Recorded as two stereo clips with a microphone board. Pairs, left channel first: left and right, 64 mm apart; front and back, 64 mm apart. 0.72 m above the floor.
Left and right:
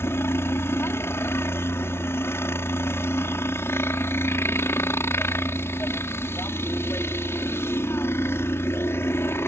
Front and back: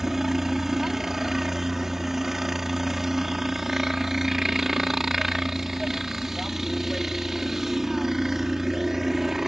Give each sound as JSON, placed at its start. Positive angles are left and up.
{"t": 0.0, "sound": "a helicopter", "azimuth_deg": 95}